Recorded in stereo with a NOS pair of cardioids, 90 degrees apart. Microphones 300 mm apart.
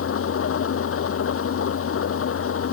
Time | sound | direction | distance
0.0 | an engine running | 45° left | ?